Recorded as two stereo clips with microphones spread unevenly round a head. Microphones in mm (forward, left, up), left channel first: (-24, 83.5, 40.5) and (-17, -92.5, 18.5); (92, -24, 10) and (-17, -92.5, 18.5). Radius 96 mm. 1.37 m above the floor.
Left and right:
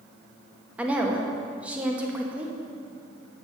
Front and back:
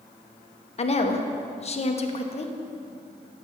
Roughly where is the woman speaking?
Ahead.